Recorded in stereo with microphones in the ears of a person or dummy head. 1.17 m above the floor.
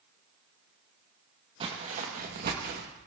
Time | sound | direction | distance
1.6 | footsteps | 30° right (ahead or behind) | 2.5 m